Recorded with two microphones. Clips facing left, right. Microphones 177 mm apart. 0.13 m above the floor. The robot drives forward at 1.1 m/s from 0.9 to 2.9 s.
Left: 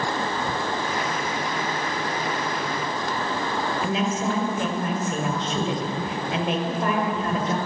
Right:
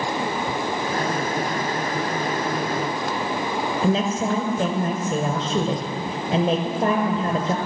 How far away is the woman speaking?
About 1.8 m.